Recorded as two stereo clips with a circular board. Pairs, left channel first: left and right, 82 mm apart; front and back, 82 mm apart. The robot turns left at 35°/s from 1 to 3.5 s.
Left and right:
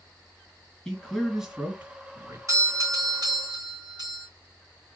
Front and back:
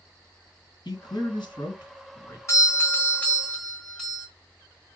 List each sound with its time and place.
0.8 s a man speaking: 10° left, 3.5 m; by 2.4 s 40° right, 3.5 m
2.5 s a doorbell: 45° right, 3.5 m; by 4.3 s 80° right, 3.5 m